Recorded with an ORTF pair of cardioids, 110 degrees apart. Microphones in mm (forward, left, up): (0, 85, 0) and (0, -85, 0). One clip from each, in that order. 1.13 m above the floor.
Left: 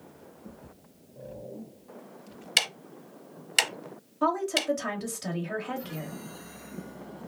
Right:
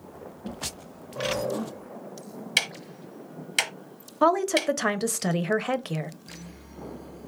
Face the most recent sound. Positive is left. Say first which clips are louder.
# right 5 dB
turn(degrees=-45)